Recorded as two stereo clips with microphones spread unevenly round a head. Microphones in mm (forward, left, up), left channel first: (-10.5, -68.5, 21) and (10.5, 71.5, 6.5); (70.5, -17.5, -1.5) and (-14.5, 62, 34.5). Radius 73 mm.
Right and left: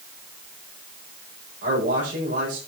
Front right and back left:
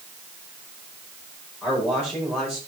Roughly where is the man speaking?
Ahead left.